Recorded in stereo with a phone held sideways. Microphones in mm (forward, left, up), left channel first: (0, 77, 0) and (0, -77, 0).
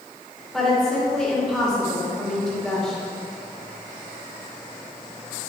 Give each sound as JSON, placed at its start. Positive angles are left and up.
{"t": 0.5, "sound": "a woman speaking", "side_deg": 0, "distance_m": 2.5}